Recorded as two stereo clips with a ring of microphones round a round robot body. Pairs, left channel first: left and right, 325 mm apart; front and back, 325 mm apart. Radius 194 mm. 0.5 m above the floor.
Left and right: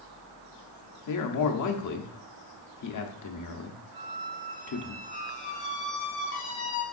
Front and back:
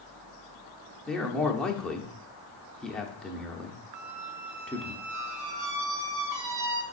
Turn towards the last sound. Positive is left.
turn(degrees=150)